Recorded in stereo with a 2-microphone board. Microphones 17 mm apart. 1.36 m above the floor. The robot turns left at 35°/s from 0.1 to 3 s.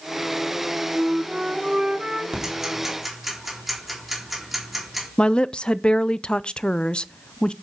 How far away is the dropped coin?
I don't hear a dropped coin.